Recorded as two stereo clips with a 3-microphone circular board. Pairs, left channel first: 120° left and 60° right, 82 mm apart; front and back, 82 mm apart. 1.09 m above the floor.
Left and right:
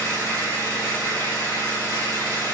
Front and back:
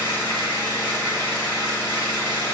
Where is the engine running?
70° left, 1.9 m.